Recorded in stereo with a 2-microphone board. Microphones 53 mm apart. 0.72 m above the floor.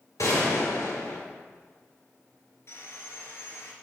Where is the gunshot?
75° left (ahead or behind), 2.5 m.